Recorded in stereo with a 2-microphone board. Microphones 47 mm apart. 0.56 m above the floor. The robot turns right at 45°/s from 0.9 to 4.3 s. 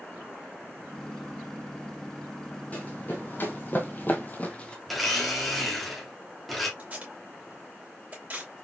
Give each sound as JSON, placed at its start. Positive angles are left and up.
{"t": 2.7, "sound": "running footsteps", "side_deg": 30, "distance_m": 1.6}
{"t": 4.9, "sound": "a blender", "side_deg": 0, "distance_m": 1.3}
{"t": 6.8, "sound": "tape being pulled", "side_deg": -30, "distance_m": 2.5}